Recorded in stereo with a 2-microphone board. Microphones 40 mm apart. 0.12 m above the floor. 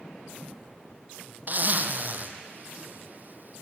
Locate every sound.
1.5 s a zipper: 40° right (ahead or behind), 1.3 m